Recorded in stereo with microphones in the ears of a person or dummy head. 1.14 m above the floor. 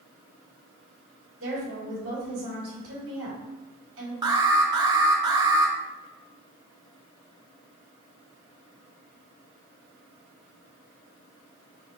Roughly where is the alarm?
Right.